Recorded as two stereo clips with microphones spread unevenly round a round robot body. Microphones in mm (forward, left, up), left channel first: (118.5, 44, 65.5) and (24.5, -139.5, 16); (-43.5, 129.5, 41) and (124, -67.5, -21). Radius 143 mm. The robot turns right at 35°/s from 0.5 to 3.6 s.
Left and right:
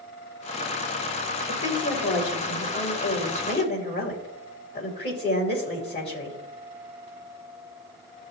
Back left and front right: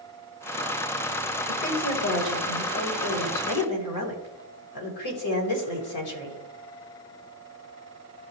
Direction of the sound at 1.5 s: 60° left.